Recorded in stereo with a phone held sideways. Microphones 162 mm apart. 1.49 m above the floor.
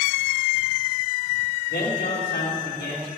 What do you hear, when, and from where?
1.7 s a man speaking: 85° left, 2.5 m